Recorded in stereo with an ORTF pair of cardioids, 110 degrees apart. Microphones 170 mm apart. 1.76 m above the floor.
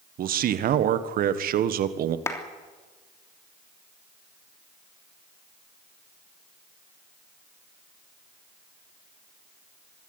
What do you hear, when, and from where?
0.2 s a man speaking: 60° right, 1.7 m
2.3 s a clap: 15° left, 3 m